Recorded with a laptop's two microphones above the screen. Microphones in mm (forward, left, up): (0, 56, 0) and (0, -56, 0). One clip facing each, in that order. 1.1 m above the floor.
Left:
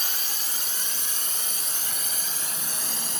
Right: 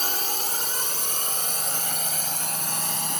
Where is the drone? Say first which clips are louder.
Right 8 dB; 50° right (ahead or behind); by 3.2 s 55° right (ahead or behind).